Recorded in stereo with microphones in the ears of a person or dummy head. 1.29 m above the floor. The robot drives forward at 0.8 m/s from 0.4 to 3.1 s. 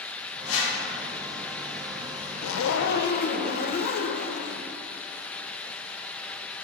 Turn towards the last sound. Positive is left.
turn(degrees=45)  # may be behind; listen again after turning